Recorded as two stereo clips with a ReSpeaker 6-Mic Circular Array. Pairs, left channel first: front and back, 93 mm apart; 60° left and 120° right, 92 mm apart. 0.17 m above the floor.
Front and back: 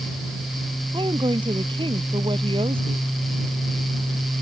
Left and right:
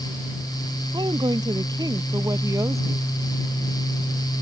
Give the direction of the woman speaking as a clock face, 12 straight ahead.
5 o'clock.